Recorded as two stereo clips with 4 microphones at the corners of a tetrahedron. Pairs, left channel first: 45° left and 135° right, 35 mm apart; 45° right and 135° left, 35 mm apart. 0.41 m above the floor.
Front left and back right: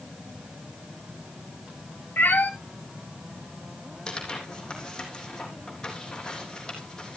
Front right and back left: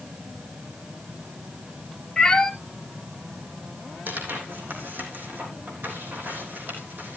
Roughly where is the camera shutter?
I don't hear a camera shutter.